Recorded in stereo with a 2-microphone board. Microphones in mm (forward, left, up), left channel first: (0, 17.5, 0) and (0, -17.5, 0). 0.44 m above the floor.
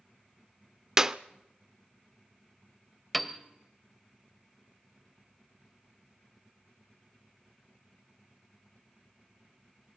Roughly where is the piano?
Centre.